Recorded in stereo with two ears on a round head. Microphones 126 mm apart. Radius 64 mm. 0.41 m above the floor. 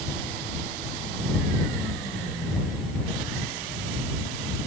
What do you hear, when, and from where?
Only background noise.